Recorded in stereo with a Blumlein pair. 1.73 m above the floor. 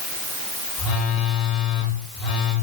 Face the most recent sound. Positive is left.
turn(degrees=35)